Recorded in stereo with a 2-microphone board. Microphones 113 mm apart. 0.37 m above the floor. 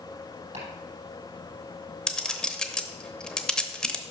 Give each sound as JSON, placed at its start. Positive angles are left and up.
{"t": 0.5, "sound": "chopping", "side_deg": -80, "distance_m": 5.5}
{"t": 2.1, "sound": "a clink", "side_deg": 5, "distance_m": 0.8}